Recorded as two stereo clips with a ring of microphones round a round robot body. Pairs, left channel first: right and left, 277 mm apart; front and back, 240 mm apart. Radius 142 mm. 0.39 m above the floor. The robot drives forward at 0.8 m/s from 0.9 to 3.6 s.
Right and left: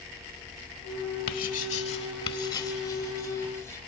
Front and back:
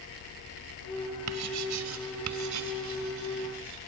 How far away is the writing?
About 0.9 m.